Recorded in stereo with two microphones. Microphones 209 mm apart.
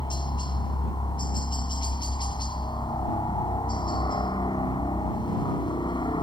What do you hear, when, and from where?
0.0 s a helicopter: 20° left (ahead or behind)